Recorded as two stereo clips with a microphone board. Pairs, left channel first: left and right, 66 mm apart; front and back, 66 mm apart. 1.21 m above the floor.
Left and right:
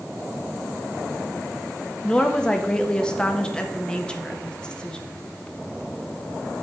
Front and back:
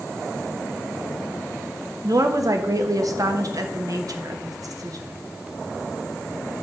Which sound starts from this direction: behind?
A woman speaking, at 2.0 s.